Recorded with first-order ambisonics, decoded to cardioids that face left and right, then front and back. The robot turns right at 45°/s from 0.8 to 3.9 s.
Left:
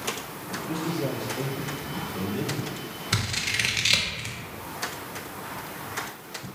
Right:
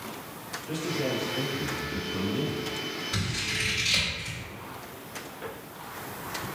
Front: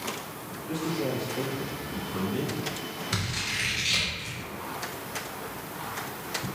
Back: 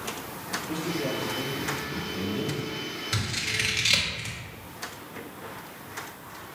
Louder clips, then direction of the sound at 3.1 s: Left 6 dB, back 1 dB; 85° left.